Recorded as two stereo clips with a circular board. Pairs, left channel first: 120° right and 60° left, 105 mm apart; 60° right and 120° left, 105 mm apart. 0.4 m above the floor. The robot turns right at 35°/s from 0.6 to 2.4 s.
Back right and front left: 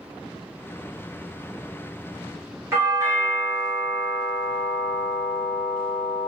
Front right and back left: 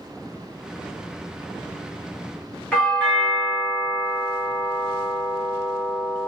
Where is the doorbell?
15° left, 1.4 m.